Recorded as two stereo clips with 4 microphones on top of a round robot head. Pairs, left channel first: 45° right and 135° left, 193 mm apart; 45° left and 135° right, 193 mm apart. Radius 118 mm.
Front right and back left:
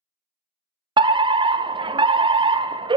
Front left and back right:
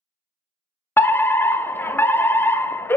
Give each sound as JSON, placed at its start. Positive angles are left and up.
{"t": 1.0, "sound": "a fire alarm", "azimuth_deg": 110, "distance_m": 0.6}